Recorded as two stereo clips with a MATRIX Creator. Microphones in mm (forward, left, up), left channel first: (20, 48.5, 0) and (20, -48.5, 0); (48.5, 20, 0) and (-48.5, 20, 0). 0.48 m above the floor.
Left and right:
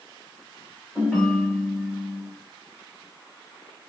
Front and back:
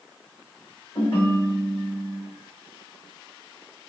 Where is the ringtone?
5° right, 1.6 m.